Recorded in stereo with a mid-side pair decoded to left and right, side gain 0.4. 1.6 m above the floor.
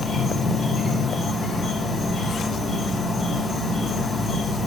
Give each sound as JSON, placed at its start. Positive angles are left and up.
{"t": 0.0, "sound": "an insect", "azimuth_deg": 60, "distance_m": 3.0}